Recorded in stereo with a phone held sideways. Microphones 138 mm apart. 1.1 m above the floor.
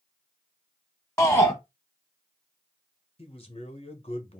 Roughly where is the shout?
Centre.